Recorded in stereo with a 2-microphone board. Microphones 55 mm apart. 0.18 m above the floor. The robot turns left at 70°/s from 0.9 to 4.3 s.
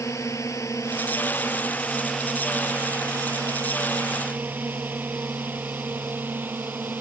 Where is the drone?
70° left (ahead or behind); by 7.0 s 35° right (ahead or behind).